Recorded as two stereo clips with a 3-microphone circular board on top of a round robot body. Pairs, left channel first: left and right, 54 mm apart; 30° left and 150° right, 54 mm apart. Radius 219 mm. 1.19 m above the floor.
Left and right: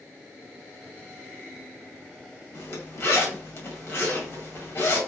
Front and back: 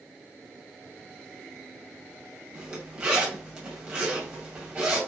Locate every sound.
2.5 s a zipper: 130° left, 2.0 m